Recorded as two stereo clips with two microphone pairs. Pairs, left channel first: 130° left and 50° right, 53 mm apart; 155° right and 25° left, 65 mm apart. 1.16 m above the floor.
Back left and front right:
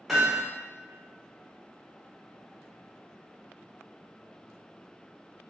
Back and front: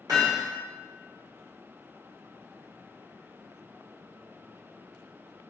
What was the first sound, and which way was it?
Hammering, 35° left.